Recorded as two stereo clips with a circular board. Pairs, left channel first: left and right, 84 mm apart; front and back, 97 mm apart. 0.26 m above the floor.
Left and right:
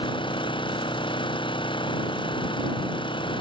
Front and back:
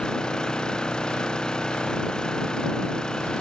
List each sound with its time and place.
0.0 s an engine running: 80° left